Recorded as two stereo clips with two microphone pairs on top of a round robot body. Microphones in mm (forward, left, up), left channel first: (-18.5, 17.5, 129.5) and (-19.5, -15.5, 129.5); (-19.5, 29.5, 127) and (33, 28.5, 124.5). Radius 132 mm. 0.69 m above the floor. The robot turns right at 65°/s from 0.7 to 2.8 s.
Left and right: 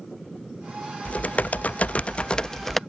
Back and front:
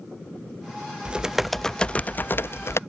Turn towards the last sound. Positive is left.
turn(degrees=170)